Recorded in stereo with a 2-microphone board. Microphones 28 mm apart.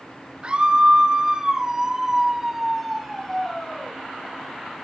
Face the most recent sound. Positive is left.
turn(degrees=15)  # may be behind; listen again after turning